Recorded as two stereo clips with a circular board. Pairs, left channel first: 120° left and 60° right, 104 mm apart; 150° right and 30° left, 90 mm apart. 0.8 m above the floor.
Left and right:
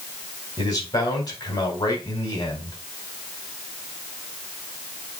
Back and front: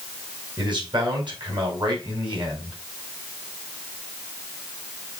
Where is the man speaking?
65° left, 4.5 m.